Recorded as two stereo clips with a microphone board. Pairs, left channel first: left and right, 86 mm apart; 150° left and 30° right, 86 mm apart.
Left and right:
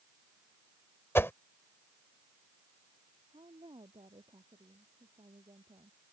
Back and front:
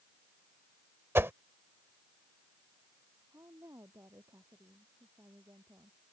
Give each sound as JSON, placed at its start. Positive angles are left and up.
{"t": 1.1, "sound": "a whoosh", "azimuth_deg": 30}
{"t": 3.3, "sound": "a woman speaking", "azimuth_deg": -85}